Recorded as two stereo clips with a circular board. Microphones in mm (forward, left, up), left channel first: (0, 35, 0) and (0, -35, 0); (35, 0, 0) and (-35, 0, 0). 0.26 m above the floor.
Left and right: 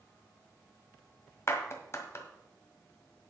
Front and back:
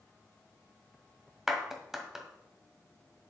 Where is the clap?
100° left, 1.5 m.